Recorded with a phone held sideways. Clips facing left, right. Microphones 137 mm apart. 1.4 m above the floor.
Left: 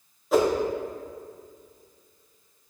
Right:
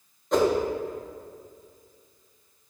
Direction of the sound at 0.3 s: 5° left (ahead or behind).